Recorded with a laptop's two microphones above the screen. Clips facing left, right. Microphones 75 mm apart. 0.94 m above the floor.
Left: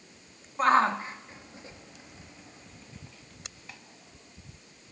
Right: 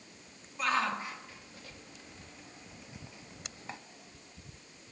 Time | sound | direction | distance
0.6 | a shout | 40° left (ahead or behind) | 2 m